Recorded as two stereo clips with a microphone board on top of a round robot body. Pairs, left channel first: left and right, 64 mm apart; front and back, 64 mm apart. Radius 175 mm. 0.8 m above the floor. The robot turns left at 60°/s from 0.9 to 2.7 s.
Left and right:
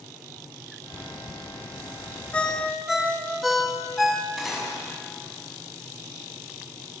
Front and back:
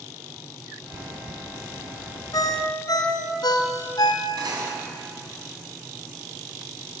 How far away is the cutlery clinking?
About 5.5 m.